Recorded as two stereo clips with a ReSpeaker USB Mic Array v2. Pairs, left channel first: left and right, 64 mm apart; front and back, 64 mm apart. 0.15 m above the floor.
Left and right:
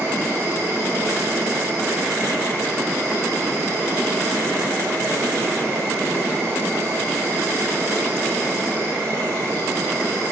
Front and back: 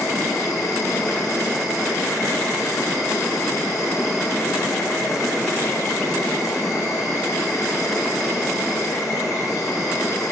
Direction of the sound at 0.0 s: 40° right.